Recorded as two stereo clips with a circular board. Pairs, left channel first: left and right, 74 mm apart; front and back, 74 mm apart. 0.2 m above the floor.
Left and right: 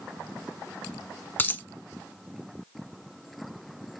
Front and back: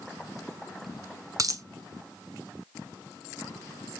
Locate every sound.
1.4 s a dropped coin: 150° left, 0.5 m